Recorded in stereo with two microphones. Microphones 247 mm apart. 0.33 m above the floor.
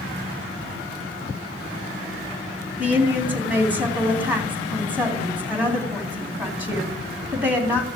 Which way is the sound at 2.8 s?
5° right (ahead or behind).